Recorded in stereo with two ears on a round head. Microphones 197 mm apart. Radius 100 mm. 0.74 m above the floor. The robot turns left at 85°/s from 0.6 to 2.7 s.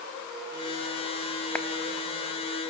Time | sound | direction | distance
1.6 | a clap | 5° left (ahead or behind) | 0.8 m